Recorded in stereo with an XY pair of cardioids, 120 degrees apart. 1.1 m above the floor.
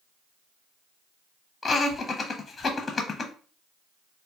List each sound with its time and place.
1.6 s laughter: 20° left, 0.7 m